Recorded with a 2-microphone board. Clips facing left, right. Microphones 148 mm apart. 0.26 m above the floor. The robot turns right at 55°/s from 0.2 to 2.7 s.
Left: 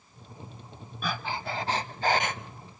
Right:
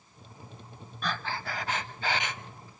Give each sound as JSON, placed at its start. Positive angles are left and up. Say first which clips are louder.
{"t": 1.0, "sound": "breathing", "louder": "left 1 dB", "azimuth_deg": 10, "distance_m": 0.8}